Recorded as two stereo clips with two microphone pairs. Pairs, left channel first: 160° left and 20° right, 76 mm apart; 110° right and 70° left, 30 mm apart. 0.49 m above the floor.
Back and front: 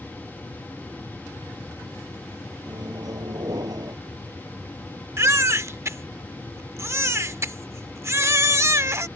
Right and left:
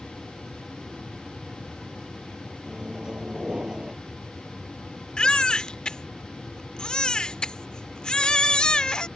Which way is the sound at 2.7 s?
10° left.